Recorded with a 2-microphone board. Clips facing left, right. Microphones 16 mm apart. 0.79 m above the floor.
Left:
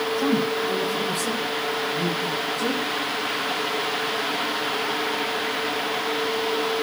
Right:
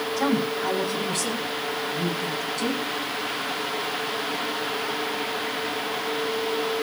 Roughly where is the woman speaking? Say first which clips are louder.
Even; right.